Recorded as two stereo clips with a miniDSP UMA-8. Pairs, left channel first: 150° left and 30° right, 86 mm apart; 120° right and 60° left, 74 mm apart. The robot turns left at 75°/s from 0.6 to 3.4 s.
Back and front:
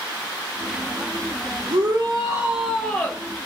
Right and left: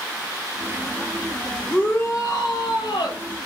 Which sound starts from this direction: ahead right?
A shout, at 1.7 s.